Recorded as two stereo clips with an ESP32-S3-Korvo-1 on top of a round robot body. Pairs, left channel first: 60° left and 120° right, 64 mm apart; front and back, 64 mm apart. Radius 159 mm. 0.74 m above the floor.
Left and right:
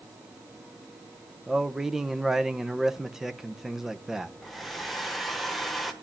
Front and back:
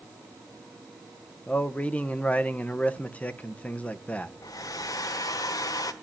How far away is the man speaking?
About 1.2 m.